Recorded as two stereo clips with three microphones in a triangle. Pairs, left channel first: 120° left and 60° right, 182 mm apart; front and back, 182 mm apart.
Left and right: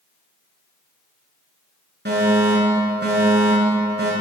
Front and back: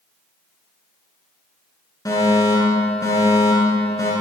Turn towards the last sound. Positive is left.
turn(degrees=-70)